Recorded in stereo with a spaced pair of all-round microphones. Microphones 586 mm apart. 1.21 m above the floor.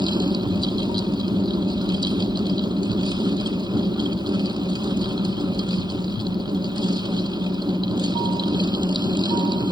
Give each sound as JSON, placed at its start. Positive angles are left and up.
{"t": 0.0, "sound": "a fan", "side_deg": -5}